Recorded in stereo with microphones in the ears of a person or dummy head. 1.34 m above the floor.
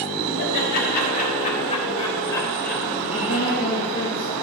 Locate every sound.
0.4 s laughter: 55° left (ahead or behind), 3.5 m; by 4.1 s 30° right (ahead or behind), 3 m
3.1 s a woman speaking: 45° left (ahead or behind), 2.5 m